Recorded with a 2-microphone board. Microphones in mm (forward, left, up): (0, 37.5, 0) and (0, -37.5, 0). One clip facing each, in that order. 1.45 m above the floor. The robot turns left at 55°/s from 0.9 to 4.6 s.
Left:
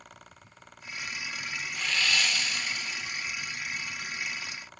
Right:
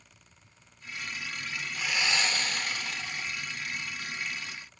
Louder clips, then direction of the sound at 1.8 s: Even; 5° right.